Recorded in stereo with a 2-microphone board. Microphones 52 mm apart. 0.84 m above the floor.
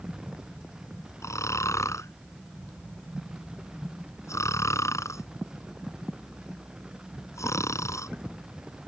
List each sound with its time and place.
1.2 s snoring: 80° left